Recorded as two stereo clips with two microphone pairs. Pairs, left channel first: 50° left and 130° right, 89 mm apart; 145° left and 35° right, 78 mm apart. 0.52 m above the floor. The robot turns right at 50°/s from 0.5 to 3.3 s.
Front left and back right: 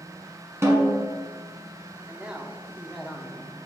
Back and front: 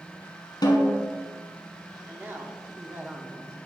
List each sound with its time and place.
0.6 s a snare drum: 170° left, 1.5 m; by 1.1 s 165° right, 1.5 m
2.1 s a man speaking: 70° right, 0.7 m; by 3.5 s 10° right, 0.7 m